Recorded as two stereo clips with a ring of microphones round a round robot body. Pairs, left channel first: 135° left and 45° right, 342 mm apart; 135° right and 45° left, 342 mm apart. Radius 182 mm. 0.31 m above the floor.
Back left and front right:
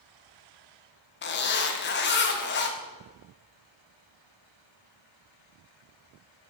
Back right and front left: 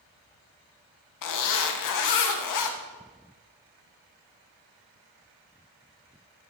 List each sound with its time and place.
1.2 s a zipper: 165° right, 1.3 m